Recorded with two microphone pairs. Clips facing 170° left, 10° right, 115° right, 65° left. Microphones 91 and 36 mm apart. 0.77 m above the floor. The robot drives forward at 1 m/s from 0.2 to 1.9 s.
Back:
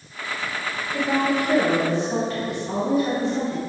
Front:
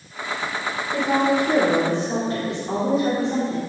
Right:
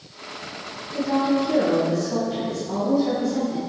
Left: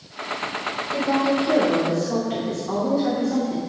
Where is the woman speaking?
30° left, 3.5 m; by 3.6 s 45° left, 2.5 m.